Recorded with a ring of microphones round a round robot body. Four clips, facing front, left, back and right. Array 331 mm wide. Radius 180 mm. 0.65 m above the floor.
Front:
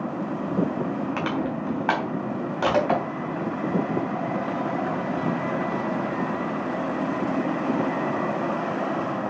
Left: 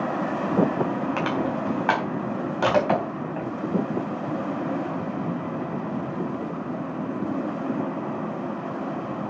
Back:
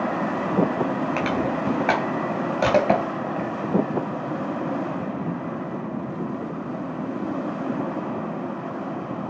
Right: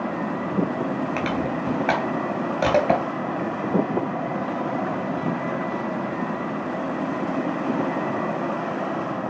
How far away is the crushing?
About 3.5 m.